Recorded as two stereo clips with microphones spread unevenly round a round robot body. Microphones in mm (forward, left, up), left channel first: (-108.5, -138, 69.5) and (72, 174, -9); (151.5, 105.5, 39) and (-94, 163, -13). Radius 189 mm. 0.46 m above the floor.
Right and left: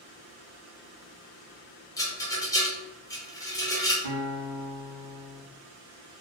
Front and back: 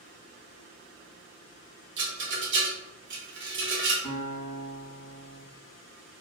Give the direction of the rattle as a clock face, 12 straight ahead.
7 o'clock.